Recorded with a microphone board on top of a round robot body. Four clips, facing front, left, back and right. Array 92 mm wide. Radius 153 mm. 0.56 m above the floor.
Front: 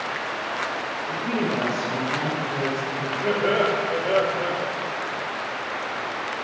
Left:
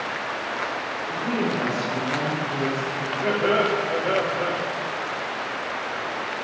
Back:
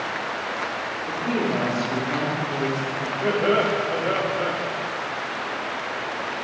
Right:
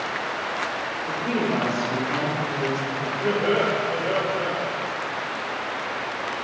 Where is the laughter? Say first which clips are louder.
Left 1 dB, back 1 dB; 140° left, 1.9 m.